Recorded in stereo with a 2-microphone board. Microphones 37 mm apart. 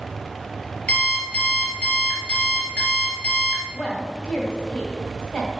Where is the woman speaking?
35° left (ahead or behind), 2.0 m.